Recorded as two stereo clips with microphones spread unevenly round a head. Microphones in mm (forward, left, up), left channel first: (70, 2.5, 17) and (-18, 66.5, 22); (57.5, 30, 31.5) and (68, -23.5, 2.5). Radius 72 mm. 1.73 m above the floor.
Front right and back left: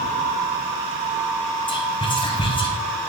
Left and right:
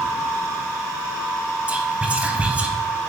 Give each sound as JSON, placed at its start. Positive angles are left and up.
{"t": 1.7, "sound": "whispering", "azimuth_deg": 0, "distance_m": 1.1}